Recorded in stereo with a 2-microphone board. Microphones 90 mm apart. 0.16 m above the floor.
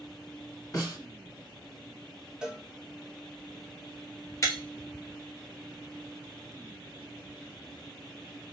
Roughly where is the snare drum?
Left.